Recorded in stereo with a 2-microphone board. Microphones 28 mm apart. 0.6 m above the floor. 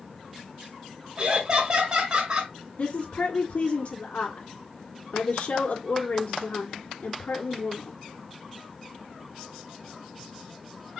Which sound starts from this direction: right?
Laughter, at 1.2 s.